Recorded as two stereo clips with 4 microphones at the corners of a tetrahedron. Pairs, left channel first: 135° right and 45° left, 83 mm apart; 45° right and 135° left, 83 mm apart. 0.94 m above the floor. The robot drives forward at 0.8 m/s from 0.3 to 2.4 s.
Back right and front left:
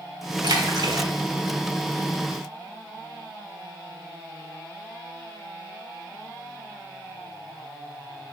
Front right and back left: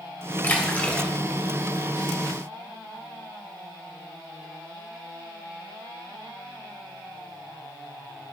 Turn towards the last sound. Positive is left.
turn(degrees=85)